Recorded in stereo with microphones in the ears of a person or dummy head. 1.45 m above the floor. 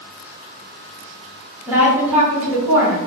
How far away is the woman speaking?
About 1.3 m.